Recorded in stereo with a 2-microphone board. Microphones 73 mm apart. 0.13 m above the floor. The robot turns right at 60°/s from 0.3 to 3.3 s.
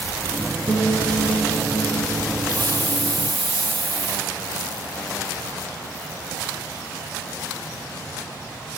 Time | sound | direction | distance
0.7 | a piano | 30° left | 4 m
2.5 | a hiss | 125° right | 7 m